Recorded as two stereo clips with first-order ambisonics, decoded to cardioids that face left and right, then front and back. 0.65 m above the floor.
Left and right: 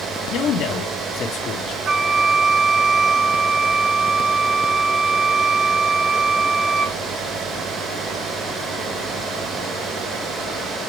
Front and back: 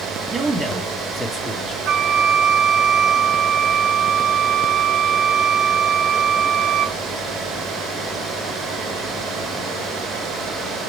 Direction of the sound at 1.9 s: 145° right.